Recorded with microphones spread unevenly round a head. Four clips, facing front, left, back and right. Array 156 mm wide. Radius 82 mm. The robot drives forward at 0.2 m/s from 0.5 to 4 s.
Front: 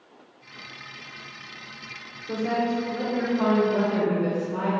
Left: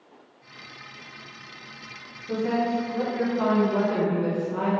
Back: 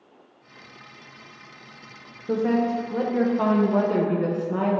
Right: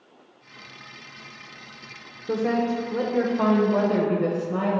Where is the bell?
I don't hear a bell.